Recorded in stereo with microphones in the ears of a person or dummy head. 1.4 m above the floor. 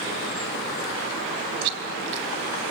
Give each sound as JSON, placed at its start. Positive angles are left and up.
{"t": 1.6, "sound": "chewing", "side_deg": -65, "distance_m": 3.5}